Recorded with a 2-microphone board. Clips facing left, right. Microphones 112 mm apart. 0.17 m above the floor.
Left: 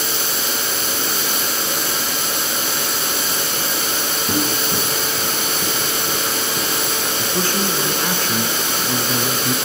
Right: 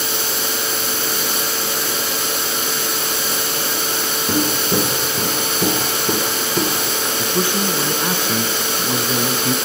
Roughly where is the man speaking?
Centre.